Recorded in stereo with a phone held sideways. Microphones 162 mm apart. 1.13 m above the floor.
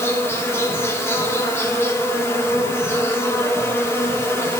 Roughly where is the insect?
Centre.